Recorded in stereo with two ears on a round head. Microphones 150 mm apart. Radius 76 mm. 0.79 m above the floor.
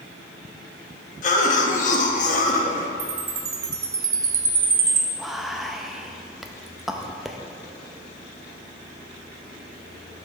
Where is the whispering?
Centre (ahead or behind), 0.5 m.